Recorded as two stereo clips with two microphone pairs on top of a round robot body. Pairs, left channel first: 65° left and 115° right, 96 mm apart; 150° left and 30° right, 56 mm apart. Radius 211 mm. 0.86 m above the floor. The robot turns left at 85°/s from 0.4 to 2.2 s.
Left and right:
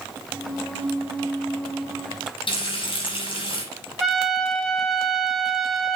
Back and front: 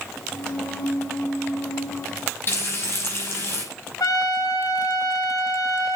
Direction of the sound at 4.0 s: 155° left.